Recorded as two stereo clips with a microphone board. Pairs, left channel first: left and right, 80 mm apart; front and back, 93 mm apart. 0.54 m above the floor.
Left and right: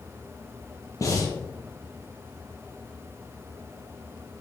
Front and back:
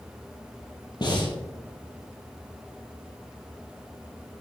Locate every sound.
1.0 s breathing: 40° left, 2.5 m